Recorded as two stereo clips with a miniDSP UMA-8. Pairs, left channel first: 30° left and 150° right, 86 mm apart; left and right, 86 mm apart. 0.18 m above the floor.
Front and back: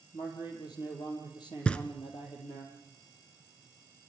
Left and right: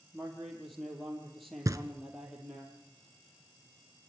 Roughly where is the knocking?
Ahead right.